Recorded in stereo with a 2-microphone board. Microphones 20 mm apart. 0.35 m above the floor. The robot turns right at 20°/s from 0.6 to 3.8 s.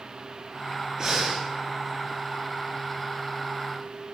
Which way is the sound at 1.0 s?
30° right (ahead or behind).